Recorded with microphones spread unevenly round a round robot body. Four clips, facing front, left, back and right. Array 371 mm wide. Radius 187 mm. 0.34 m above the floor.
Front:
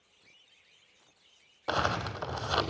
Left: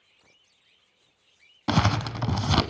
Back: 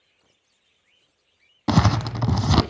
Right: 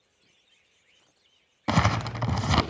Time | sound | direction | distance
1.7 | crumpling | 175° left | 1.1 m